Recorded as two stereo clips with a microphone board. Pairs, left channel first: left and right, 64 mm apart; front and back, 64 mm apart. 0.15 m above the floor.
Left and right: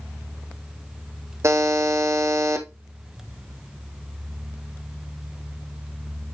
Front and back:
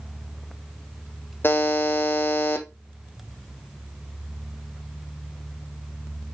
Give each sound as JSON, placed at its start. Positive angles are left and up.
{"t": 1.4, "sound": "a buzzer", "azimuth_deg": -55, "distance_m": 1.3}